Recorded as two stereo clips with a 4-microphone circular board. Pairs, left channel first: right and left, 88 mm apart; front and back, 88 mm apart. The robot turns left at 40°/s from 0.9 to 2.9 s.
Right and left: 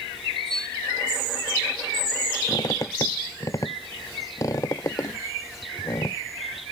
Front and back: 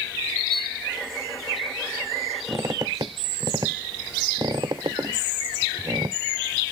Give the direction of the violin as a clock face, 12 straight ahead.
3 o'clock.